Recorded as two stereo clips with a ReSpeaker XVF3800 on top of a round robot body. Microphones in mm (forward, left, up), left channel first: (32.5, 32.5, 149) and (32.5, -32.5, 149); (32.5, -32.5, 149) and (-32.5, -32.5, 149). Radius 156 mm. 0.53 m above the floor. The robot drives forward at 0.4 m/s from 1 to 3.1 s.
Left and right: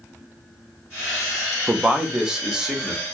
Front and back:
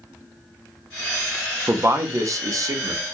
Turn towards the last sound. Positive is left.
turn(degrees=-170)